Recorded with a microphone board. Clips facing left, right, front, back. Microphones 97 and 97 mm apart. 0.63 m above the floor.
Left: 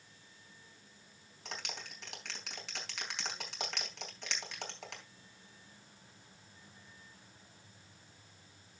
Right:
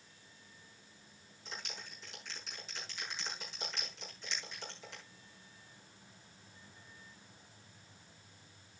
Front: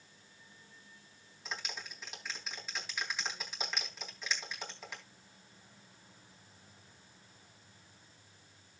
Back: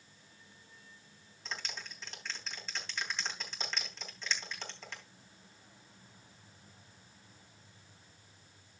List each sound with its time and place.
1.4 s a clap: 80° left, 3.5 m